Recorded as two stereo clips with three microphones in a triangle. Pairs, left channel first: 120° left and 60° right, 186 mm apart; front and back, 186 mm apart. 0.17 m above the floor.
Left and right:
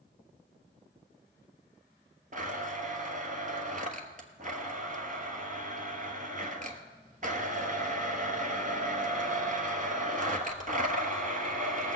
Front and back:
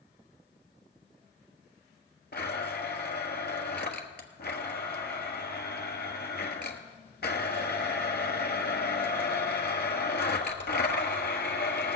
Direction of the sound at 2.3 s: 20° right.